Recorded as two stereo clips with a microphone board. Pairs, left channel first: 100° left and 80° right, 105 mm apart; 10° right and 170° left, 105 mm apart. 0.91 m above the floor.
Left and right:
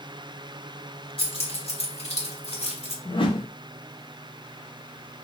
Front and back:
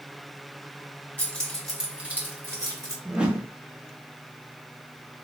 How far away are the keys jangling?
About 1.4 m.